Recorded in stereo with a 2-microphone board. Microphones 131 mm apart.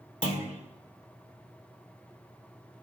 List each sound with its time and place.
0.2 s a clunk: 70° left (ahead or behind), 1.8 m